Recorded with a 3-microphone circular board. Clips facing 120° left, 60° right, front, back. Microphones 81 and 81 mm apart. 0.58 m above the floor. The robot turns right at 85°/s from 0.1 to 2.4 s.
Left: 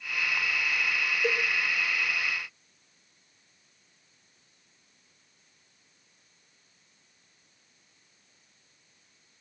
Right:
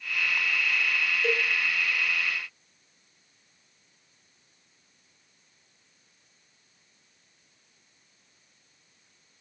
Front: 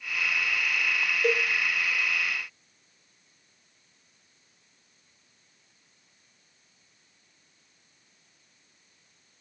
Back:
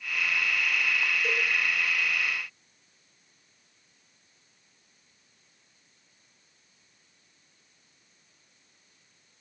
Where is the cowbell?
40° left, 2.0 m; by 1.4 s 55° left, 2.0 m.